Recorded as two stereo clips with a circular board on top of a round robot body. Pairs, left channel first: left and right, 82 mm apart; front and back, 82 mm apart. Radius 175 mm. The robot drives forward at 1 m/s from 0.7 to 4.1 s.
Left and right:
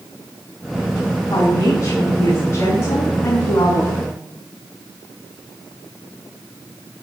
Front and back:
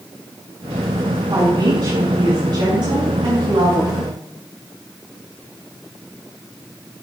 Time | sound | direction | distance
1.3 | a woman speaking | 130° left | 5.5 m